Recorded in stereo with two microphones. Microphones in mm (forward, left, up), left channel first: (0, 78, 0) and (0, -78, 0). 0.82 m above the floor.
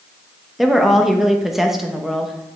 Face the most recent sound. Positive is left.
turn(degrees=0)  # may be behind; listen again after turning